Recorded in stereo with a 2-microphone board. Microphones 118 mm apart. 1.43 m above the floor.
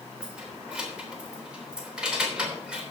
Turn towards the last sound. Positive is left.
turn(degrees=-10)  # may be behind; listen again after turning